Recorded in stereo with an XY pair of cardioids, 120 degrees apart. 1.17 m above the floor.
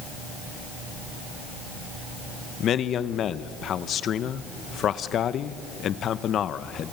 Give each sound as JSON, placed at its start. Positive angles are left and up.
{"t": 2.6, "sound": "a man speaking", "azimuth_deg": 55, "distance_m": 0.9}